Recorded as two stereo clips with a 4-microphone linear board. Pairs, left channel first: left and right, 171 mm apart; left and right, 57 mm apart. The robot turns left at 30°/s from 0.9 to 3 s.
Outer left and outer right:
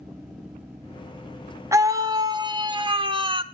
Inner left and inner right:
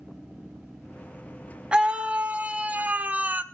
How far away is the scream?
About 1.4 m.